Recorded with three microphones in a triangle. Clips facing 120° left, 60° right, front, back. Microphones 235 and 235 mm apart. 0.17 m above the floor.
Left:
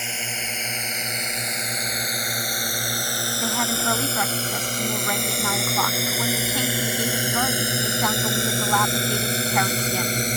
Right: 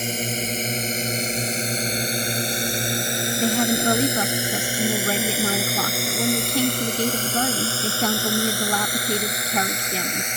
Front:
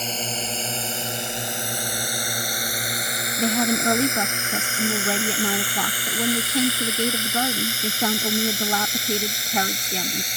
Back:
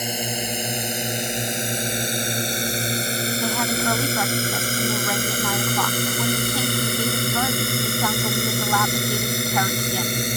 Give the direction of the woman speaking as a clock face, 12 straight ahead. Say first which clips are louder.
Right 7 dB, front 6 dB; 1 o'clock.